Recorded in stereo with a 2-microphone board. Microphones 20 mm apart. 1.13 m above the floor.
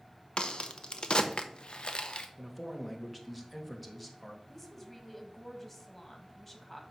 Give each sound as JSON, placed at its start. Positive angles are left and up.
{"t": 0.4, "sound": "a crack", "side_deg": 55, "distance_m": 0.7}
{"t": 2.4, "sound": "a man speaking", "side_deg": 5, "distance_m": 1.4}
{"t": 4.5, "sound": "a woman speaking", "side_deg": 15, "distance_m": 1.6}